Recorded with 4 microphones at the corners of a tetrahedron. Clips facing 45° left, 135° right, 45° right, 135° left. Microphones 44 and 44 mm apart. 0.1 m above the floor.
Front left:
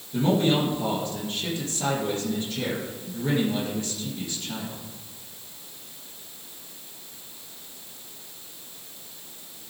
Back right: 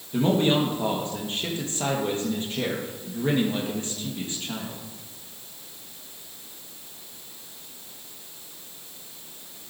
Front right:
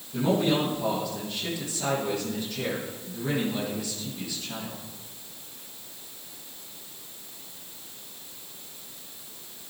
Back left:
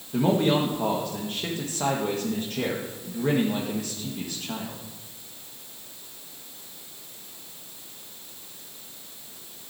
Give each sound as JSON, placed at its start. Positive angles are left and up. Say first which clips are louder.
{"t": 0.1, "sound": "a man speaking", "louder": "back right 1 dB, back left 2 dB", "azimuth_deg": 170, "distance_m": 3.5}